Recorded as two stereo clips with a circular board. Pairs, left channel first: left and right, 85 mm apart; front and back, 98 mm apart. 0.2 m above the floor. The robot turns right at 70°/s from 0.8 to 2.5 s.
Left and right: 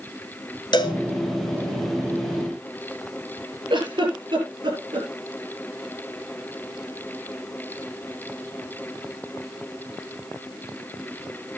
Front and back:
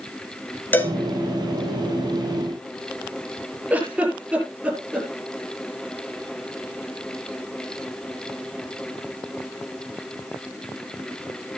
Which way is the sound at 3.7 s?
105° right.